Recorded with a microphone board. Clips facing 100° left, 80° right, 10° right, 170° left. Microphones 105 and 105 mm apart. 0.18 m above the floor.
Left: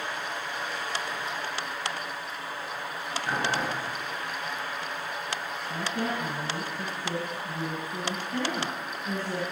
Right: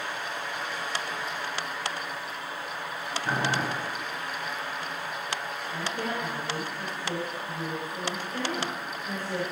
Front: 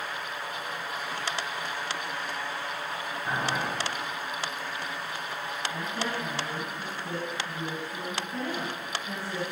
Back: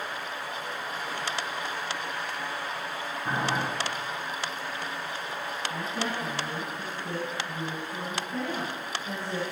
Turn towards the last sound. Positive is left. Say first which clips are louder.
# left 2 dB, back 1 dB
turn(degrees=85)